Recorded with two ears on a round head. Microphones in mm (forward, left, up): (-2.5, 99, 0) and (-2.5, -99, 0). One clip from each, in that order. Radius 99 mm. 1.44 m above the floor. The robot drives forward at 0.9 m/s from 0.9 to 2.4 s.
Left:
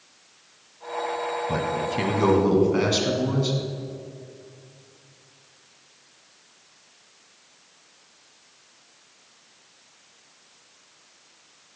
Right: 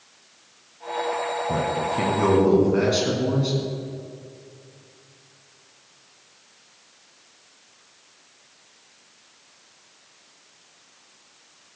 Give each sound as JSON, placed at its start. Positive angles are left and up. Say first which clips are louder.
{"t": 1.5, "sound": "a man speaking", "louder": "right 2 dB", "side_deg": 40, "distance_m": 1.3}